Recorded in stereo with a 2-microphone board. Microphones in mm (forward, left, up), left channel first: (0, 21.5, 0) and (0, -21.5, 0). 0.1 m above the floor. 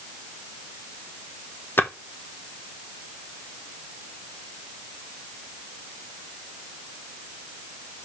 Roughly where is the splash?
Left.